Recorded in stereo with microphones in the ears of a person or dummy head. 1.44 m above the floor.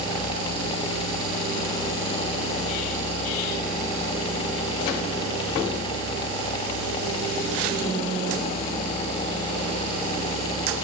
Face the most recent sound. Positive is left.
No sound to turn to.